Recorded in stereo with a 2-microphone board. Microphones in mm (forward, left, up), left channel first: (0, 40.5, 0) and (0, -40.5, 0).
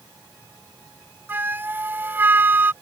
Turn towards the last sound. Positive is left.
turn(degrees=-25)  # may be behind; listen again after turning